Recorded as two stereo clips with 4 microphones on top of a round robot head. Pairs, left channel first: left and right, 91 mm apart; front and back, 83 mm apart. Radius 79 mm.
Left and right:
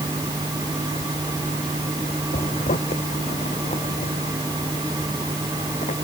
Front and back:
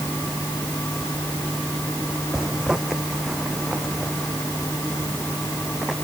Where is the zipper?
100° left.